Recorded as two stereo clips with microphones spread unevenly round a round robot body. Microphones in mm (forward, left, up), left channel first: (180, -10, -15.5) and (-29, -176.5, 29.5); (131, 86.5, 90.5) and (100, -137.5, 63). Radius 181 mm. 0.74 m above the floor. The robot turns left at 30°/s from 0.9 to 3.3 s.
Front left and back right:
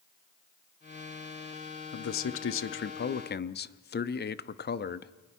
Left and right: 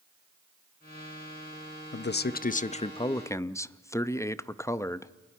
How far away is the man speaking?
About 0.7 m.